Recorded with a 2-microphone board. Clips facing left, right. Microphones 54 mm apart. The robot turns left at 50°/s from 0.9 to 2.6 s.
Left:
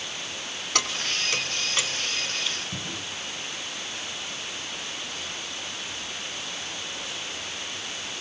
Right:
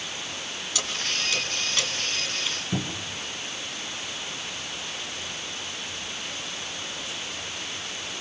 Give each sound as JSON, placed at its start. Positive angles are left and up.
{"t": 0.8, "sound": "keys jangling", "side_deg": 60, "distance_m": 3.0}
{"t": 2.7, "sound": "a cupboard door", "side_deg": -45, "distance_m": 3.0}